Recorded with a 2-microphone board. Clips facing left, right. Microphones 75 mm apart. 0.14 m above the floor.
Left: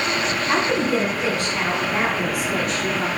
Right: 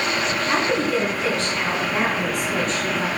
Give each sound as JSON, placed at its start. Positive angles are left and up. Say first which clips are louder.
{"t": 0.5, "sound": "a woman speaking", "louder": "left 1 dB", "side_deg": 20, "distance_m": 1.3}